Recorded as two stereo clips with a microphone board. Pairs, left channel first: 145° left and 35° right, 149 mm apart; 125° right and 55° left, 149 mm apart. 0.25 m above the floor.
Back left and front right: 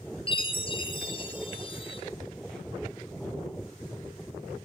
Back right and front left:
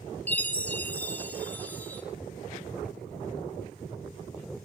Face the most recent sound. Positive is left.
turn(degrees=165)